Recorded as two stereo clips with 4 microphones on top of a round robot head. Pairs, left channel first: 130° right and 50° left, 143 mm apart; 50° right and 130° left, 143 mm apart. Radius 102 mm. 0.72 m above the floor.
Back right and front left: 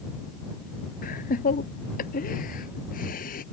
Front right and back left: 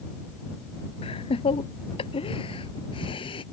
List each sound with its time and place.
1.0 s laughter: 100° right; by 3.4 s 105° right